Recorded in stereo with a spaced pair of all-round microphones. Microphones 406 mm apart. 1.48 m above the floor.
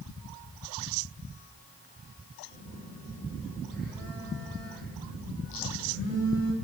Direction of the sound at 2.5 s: 25° right (ahead or behind).